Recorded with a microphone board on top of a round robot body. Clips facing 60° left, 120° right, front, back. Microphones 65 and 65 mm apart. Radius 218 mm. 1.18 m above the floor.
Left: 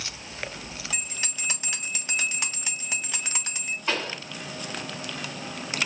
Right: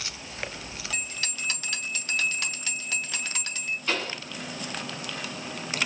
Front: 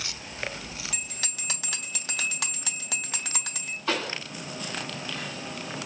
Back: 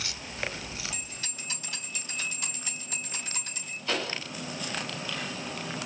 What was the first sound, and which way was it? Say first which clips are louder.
A bell: right 1 dB, front 3 dB; 15° right.